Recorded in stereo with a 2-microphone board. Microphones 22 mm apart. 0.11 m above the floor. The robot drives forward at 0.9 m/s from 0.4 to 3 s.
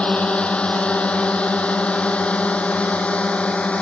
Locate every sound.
0.0 s a drone: 60° left (ahead or behind); by 3.8 s 65° left (ahead or behind)